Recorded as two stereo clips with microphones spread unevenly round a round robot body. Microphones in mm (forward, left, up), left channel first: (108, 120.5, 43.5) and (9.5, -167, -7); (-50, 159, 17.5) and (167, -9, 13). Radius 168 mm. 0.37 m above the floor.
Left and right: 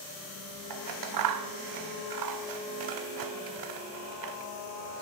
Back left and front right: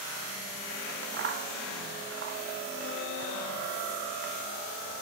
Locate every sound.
0.7 s scissors: 95° right, 0.8 m